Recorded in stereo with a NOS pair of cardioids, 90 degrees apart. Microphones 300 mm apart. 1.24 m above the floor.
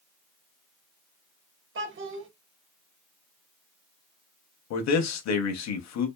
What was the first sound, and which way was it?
A child speaking, 40° right.